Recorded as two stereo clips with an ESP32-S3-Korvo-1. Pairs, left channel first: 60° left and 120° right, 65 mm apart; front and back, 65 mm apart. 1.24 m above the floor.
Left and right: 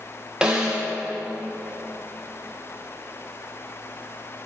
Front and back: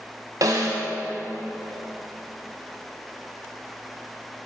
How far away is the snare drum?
About 1.4 m.